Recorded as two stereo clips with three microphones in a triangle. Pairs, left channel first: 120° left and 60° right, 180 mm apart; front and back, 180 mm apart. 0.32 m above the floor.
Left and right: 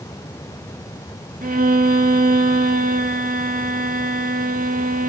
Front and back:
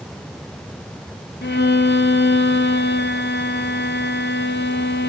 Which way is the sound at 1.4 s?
20° right.